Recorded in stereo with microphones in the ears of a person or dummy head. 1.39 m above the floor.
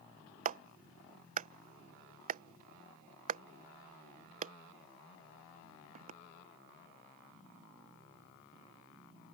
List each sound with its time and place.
0.5 s a clap: 40° right (ahead or behind)